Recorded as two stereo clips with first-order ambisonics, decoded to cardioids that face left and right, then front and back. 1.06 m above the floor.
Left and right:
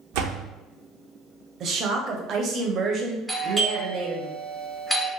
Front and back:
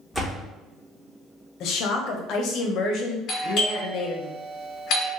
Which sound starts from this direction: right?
A door slam, at 0.1 s.